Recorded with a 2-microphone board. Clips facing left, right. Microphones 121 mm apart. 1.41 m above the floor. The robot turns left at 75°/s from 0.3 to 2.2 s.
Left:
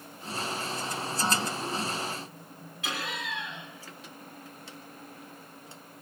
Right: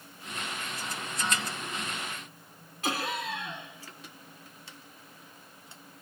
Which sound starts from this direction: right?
Laughter, at 2.8 s.